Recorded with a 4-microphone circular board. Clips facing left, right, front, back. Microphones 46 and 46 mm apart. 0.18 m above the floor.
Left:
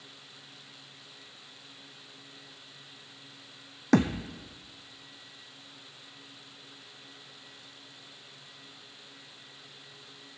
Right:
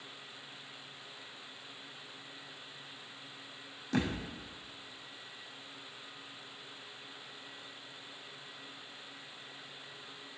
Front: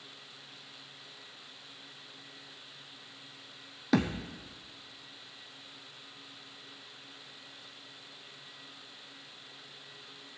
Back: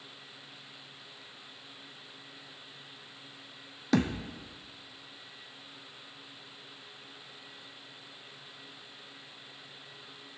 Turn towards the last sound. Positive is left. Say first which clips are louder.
# left 9 dB, back 1 dB
turn(degrees=90)